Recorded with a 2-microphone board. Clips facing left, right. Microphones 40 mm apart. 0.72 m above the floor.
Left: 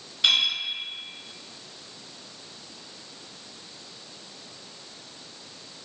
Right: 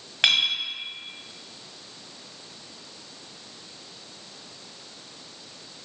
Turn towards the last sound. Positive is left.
turn(degrees=-65)  # may be behind; listen again after turning